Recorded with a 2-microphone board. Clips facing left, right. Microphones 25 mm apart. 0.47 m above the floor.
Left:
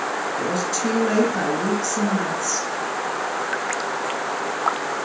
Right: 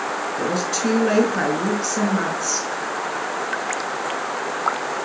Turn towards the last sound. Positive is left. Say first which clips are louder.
# right 2 dB
turn(degrees=-20)  # may be behind; listen again after turning